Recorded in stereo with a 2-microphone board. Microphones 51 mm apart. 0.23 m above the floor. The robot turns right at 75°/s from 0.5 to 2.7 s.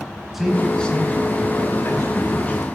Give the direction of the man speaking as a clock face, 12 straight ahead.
12 o'clock.